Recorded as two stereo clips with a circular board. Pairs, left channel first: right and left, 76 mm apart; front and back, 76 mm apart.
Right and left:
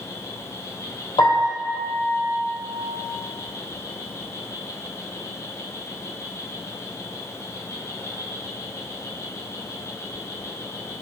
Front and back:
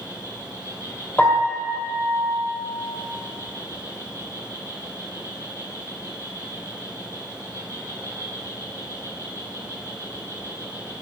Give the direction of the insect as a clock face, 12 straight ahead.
5 o'clock.